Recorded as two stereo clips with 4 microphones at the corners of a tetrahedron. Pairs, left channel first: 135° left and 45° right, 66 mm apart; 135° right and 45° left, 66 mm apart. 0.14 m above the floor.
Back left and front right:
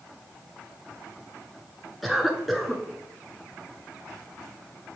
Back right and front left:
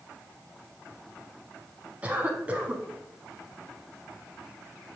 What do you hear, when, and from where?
2.0 s a cough: 45° left, 1.0 m